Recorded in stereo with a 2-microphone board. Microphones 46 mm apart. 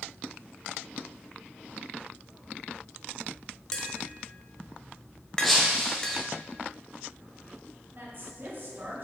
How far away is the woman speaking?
About 2.5 m.